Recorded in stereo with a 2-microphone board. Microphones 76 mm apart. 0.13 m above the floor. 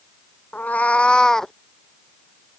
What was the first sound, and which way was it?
A cat meowing, 20° left (ahead or behind).